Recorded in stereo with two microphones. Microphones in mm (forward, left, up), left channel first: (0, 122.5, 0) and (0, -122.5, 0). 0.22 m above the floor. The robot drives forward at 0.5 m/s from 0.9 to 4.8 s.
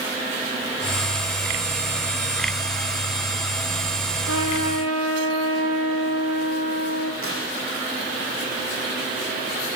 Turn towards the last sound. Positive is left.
turn(degrees=-65)  # may be behind; listen again after turning